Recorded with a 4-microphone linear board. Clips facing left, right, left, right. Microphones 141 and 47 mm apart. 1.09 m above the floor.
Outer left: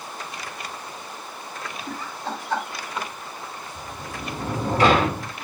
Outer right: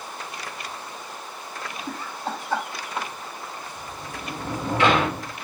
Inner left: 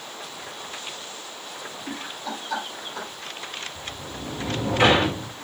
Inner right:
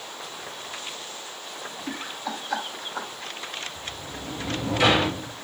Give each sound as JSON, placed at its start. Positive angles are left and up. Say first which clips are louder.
{"t": 1.9, "sound": "laughter", "louder": "even, inner right 1 dB", "side_deg": 0, "distance_m": 3.5}
{"t": 3.8, "sound": "a sliding door", "louder": "outer left 1 dB, inner left 1 dB", "side_deg": 35, "distance_m": 1.1}